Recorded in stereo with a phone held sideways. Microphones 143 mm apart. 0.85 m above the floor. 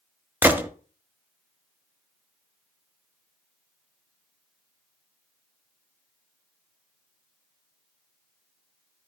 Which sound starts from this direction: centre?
A gunshot, at 0.4 s.